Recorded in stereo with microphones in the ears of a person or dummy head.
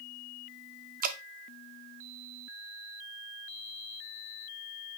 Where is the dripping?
45° right (ahead or behind), 0.5 m.